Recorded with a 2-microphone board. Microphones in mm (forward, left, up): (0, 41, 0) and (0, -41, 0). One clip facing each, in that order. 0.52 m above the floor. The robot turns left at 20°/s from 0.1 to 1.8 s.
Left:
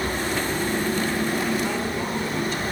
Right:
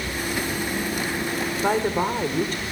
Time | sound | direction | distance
1.6 | a woman speaking | 55° right (ahead or behind) | 1.6 m